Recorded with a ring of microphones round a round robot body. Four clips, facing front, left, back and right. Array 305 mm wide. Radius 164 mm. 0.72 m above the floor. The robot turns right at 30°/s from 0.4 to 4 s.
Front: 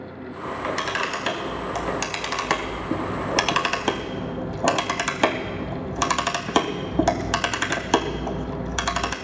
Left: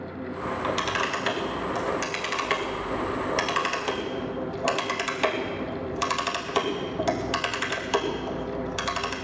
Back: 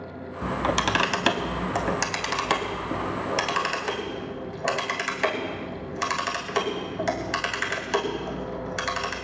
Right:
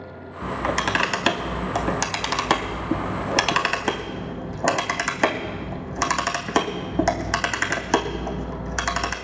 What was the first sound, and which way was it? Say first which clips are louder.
A camera shutter: right 4 dB, back 2 dB; 150° right.